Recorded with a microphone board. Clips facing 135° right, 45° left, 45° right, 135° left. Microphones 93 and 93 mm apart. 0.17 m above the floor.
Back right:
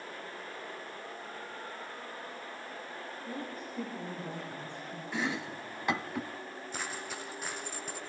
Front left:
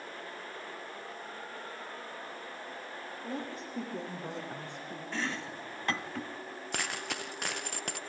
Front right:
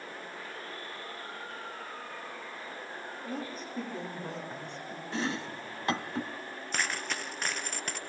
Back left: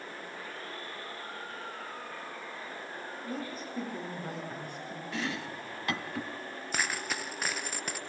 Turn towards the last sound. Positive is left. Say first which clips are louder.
# front left 3 dB, even
turn(degrees=50)